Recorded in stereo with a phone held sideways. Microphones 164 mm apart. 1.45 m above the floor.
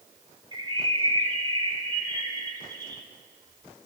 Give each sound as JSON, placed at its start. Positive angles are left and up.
{"t": 0.5, "sound": "a bird", "side_deg": -25, "distance_m": 1.9}